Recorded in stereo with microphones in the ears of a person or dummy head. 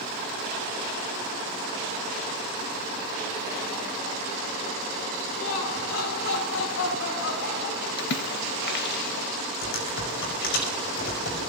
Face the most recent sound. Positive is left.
turn(degrees=60)  # may be behind; listen again after turning